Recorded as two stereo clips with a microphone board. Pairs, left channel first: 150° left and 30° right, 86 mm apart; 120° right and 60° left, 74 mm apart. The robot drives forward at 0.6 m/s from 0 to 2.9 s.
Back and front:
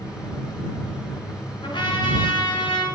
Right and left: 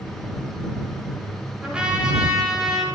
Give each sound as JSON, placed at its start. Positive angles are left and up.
{"t": 1.6, "sound": "a trumpet", "azimuth_deg": 135, "distance_m": 8.0}